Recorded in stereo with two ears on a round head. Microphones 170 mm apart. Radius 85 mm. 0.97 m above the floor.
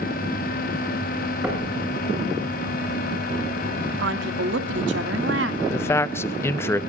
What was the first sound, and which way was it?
Knocking, 5° right (ahead or behind).